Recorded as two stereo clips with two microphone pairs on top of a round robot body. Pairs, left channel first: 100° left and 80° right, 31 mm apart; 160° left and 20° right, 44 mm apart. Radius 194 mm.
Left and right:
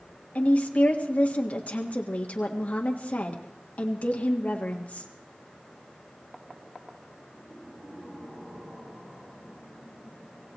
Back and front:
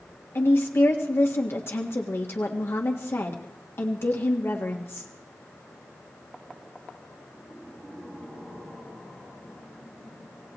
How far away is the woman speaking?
About 1.6 m.